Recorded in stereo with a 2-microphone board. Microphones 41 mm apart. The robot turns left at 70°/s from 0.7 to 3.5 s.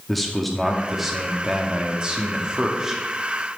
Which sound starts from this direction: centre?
A man speaking, at 0.1 s.